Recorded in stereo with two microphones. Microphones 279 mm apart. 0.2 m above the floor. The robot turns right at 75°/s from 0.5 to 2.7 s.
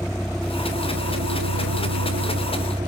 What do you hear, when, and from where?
0.0 s a vehicle: straight behind; by 2.9 s 15° right